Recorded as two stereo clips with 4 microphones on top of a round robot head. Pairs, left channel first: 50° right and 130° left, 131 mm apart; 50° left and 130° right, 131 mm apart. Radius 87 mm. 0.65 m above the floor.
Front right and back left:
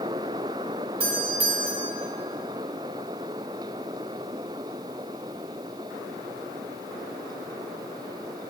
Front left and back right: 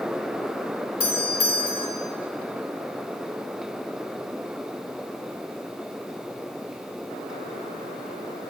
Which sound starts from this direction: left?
A doorbell, at 1.0 s.